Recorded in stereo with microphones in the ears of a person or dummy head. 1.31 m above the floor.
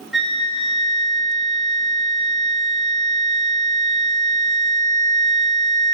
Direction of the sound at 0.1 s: 5° right (ahead or behind).